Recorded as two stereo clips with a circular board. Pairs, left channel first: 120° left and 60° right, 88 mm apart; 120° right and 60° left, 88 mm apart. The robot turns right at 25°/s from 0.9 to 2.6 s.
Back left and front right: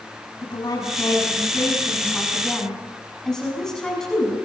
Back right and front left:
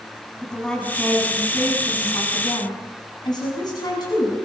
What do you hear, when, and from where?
0.4 s a woman speaking: 160° left, 6.5 m; by 4.3 s 155° right, 6.5 m